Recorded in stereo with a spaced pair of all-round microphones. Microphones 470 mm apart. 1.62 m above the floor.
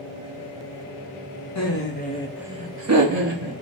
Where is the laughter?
35° left (ahead or behind), 0.8 m; by 3.5 s 60° right (ahead or behind), 0.8 m.